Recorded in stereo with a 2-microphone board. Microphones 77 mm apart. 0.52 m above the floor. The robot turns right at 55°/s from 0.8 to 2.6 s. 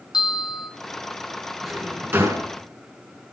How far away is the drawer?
About 3.5 m.